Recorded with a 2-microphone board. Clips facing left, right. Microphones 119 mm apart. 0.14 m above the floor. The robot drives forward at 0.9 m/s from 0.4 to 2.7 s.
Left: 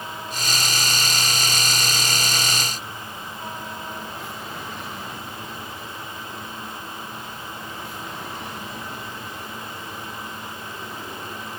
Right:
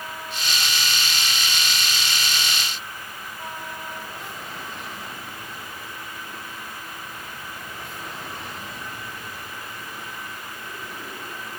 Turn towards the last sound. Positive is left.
No sound to turn to.